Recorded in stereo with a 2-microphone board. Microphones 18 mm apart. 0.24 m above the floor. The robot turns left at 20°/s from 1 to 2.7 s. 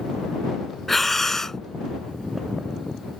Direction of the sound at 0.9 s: 10° left (ahead or behind).